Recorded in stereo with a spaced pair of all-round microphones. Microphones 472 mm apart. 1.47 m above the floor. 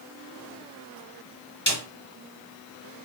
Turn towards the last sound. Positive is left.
turn(degrees=25)  # may be behind; listen again after turning